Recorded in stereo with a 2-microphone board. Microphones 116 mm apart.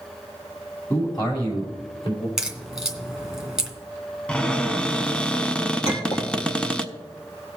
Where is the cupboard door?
10° left (ahead or behind), 0.7 m.